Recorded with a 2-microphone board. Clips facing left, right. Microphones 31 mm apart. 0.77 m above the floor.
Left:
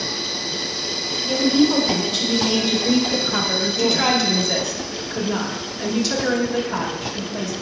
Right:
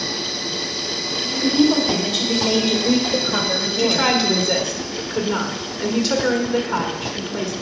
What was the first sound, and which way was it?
A woman speaking, 5° left (ahead or behind).